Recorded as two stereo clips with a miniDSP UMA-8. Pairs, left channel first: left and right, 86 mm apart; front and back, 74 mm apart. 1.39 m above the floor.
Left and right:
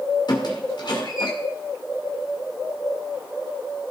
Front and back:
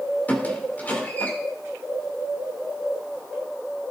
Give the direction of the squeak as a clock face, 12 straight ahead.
10 o'clock.